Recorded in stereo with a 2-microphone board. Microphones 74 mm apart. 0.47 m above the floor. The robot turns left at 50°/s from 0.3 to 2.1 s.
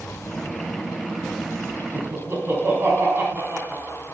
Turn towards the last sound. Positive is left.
turn(degrees=-30)  # may be behind; listen again after turning